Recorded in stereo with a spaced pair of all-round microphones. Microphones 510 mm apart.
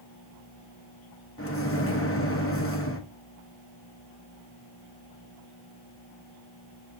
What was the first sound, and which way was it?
A microwave, 25° left (ahead or behind).